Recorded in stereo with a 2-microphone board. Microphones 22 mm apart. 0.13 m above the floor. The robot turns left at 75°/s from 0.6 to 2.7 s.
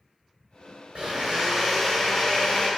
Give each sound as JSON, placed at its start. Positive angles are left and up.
{"t": 0.9, "sound": "a blender", "azimuth_deg": -115, "distance_m": 1.3}